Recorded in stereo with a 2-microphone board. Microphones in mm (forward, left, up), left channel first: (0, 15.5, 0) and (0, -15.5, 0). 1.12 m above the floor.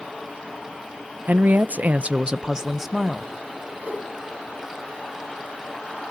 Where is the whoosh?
65° right (ahead or behind), 7.5 m.